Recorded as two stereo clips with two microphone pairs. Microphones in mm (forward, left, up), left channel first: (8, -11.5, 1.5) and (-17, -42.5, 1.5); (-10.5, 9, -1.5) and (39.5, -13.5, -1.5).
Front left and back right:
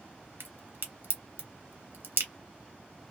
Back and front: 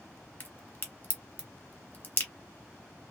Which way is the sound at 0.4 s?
145° right.